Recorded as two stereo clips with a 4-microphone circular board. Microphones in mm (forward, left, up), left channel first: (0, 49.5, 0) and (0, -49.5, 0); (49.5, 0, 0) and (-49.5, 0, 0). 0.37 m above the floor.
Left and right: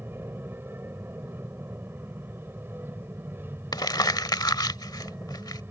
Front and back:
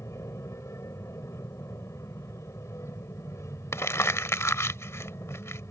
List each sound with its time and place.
0.0 s an aircraft: 40° right
3.7 s crumpling: 55° left